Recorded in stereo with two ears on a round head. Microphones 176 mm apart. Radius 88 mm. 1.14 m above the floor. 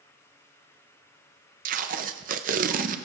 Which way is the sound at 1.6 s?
40° right (ahead or behind).